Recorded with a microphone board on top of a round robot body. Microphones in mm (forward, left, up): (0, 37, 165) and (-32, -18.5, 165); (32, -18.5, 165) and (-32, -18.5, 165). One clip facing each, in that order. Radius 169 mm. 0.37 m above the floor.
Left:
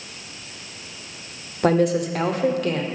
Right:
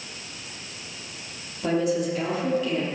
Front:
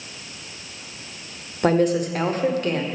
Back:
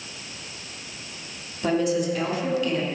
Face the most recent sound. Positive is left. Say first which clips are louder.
# left 5 dB, front 4 dB
turn(degrees=40)